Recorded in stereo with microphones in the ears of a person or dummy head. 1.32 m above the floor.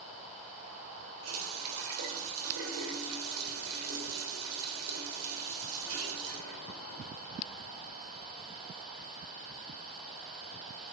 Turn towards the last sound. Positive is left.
turn(degrees=-80)